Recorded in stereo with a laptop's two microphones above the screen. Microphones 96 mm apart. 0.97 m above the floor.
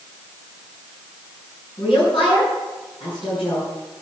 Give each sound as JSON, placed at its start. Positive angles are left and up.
{"t": 1.8, "sound": "a woman speaking", "side_deg": 60, "distance_m": 9.5}